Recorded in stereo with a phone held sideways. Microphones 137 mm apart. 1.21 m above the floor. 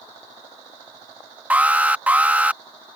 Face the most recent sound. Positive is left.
turn(degrees=-10)  # may be behind; listen again after turning